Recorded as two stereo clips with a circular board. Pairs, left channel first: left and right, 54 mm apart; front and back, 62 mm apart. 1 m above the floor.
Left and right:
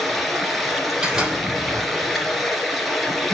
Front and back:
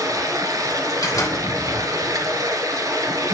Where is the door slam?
15° right, 3 m.